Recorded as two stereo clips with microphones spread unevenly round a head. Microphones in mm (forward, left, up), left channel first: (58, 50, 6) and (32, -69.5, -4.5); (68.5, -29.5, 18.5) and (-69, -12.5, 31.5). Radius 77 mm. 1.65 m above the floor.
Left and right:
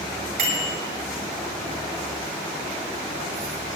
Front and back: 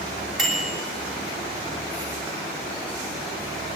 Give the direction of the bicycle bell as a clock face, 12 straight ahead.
3 o'clock.